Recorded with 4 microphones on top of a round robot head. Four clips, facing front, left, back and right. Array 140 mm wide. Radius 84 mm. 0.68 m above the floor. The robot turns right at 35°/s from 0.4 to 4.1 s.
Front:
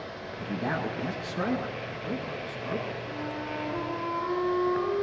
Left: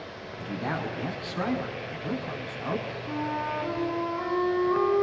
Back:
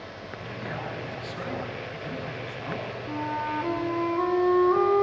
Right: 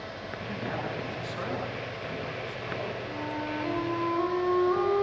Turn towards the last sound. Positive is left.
turn(degrees=-175)